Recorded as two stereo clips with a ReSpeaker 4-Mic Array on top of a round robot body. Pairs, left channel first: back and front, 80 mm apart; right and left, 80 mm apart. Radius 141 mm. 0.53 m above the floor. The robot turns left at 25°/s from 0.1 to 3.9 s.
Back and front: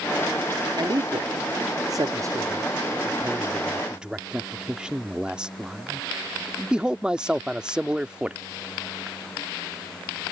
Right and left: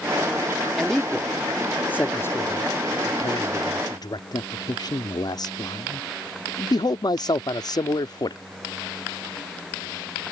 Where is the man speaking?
Straight ahead; by 8.4 s 75° right.